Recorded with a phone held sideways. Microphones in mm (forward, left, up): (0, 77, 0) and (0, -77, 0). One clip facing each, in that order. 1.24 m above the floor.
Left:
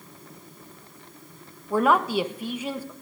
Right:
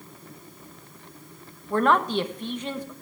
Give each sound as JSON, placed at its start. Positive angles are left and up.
{"t": 1.7, "sound": "a man speaking", "side_deg": 10, "distance_m": 1.1}